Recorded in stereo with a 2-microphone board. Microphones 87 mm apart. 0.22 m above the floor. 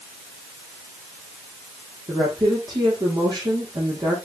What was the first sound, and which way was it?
A woman speaking, 55° right (ahead or behind).